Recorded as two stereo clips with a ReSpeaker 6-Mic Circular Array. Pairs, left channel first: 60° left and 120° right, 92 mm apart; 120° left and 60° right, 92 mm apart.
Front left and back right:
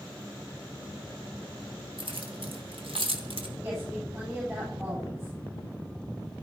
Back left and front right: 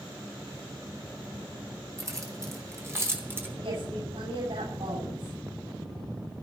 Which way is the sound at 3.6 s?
60° right.